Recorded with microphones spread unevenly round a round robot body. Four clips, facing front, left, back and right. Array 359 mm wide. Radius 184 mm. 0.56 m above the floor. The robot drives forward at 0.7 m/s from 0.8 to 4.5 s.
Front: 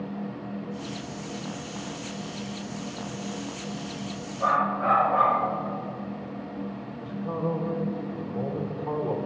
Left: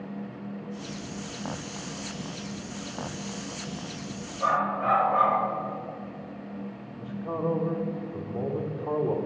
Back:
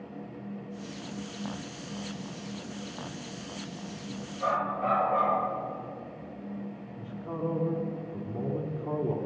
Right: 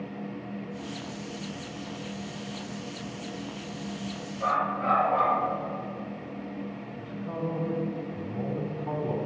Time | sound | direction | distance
4.4 | a dog barking | 175° right | 4 m
7.0 | a man speaking | 150° left | 1.6 m